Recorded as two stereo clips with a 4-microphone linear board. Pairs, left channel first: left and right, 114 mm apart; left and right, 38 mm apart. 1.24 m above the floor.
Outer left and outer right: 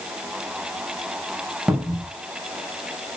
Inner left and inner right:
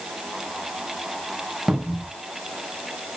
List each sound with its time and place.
1.7 s a cupboard door: 5° right (ahead or behind), 0.7 m